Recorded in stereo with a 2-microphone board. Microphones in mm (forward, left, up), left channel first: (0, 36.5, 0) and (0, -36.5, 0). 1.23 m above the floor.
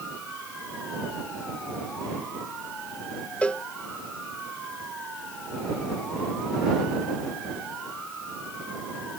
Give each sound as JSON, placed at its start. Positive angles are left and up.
{"t": 3.4, "sound": "a cowbell", "side_deg": 20}